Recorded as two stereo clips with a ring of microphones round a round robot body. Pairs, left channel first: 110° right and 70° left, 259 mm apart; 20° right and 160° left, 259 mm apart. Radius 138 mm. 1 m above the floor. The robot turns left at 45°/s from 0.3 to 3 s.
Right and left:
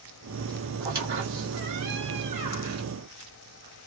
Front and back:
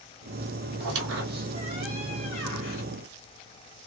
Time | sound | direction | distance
0.8 | a squeak | 130° left | 1.5 m